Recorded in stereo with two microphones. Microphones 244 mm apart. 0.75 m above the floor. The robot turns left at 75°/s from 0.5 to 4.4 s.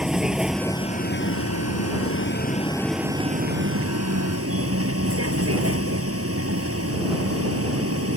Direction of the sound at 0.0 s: 175° right.